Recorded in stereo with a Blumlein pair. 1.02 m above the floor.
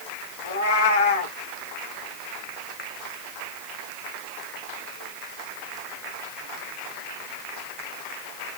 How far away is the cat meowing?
About 0.9 m.